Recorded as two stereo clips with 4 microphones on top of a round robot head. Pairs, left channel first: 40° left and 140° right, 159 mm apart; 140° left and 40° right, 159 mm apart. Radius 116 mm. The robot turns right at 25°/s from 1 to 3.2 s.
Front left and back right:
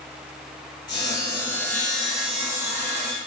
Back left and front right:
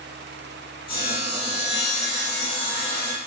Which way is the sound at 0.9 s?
105° left.